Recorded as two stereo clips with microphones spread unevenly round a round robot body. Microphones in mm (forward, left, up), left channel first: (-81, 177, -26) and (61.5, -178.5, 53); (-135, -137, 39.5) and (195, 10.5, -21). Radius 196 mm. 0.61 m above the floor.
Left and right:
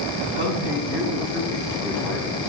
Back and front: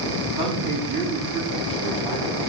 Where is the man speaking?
50° left, 4.5 m.